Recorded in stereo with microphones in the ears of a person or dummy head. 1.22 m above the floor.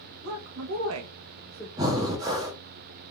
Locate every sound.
0.2 s a woman speaking: 60° right (ahead or behind), 1.2 m; by 1.7 s centre (ahead or behind), 0.8 m
1.8 s breathing: 20° right (ahead or behind), 0.7 m